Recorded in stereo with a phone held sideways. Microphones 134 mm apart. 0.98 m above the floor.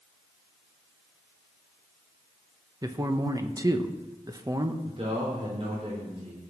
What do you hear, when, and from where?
2.8 s a man speaking: 25° right (ahead or behind), 1.0 m
4.8 s a man speaking: 50° right (ahead or behind), 3.5 m